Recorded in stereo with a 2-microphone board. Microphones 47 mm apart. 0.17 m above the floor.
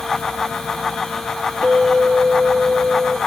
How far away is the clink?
About 2 m.